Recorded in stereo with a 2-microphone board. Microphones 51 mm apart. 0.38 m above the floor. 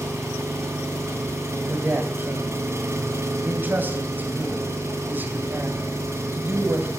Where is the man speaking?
40° right (ahead or behind), 2.5 m.